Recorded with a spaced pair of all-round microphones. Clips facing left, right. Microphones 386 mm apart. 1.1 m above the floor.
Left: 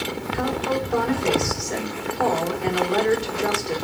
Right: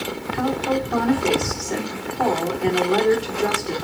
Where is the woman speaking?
65° right (ahead or behind), 3.5 m.